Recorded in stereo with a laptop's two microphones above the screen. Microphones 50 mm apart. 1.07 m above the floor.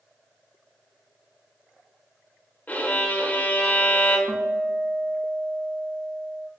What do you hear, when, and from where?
2.7 s a violin: 35° left (ahead or behind), 1.0 m
4.3 s a guitar: 40° right (ahead or behind), 0.6 m